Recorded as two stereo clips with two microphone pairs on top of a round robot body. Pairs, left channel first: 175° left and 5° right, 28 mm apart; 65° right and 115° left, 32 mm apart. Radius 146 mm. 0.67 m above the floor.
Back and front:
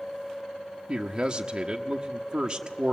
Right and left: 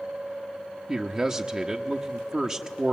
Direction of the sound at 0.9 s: 50° left.